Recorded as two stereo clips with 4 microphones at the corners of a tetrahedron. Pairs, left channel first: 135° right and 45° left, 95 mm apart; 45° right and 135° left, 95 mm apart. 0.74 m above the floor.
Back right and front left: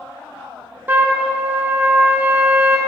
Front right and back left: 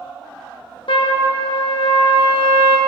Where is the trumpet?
25° right, 0.9 m.